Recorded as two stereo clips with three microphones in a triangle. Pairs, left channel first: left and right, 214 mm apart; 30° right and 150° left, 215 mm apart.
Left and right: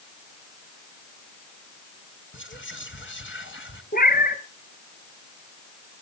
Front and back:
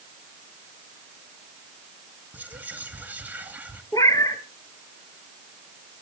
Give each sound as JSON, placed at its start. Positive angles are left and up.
{"t": 2.3, "sound": "whispering", "azimuth_deg": 70, "distance_m": 3.0}
{"t": 3.9, "sound": "a cat meowing", "azimuth_deg": 45, "distance_m": 2.0}